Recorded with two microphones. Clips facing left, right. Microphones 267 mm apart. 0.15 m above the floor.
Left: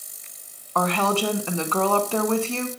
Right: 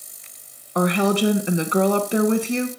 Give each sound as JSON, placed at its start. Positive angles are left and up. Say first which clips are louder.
{"t": 0.8, "sound": "a woman speaking", "louder": "right 5 dB", "side_deg": -15, "distance_m": 1.0}